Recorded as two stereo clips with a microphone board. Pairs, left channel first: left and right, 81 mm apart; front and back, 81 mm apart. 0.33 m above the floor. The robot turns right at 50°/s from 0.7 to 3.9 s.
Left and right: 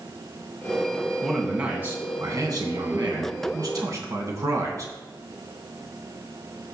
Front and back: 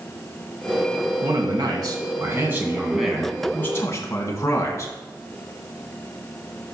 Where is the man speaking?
175° left, 2.5 m; by 4.9 s 50° right, 2.5 m.